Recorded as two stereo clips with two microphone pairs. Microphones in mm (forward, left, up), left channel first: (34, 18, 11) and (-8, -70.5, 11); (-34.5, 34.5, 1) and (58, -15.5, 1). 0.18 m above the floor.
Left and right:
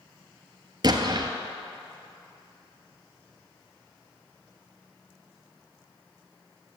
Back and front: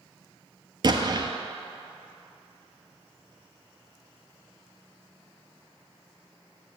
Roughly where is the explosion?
Right.